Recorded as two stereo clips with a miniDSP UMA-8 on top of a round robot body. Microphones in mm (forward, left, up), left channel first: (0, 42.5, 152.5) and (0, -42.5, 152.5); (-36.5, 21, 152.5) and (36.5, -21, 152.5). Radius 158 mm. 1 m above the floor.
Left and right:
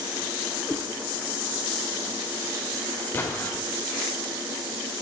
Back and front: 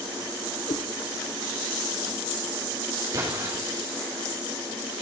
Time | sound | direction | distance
0.7 | a cat meowing | 175° left | 1.4 m
3.1 | an explosion | 20° left | 4 m